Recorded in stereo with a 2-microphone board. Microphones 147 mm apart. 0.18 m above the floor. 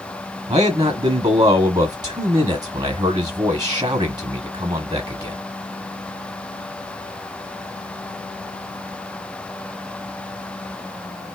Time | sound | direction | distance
0.5 | a man speaking | 25° right (ahead or behind) | 1.0 m